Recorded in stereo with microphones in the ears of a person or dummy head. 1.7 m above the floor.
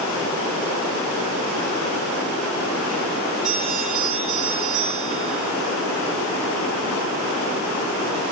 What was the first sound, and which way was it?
A bell, 10° right (ahead or behind).